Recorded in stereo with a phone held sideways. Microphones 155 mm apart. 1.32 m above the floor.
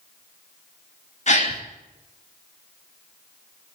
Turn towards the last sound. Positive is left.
turn(degrees=45)  # may be behind; listen again after turning